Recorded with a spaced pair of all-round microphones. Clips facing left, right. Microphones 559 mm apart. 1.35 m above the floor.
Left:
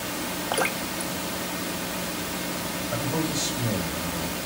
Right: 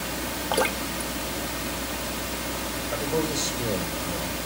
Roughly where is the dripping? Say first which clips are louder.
Right 4 dB; right.